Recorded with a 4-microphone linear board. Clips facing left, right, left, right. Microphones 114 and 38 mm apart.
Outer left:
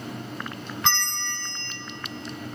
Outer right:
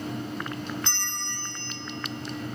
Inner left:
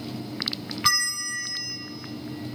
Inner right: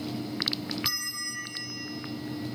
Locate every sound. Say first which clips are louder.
0.8 s a bell: outer left 7 dB, inner left 8 dB; 80° left, 1.7 m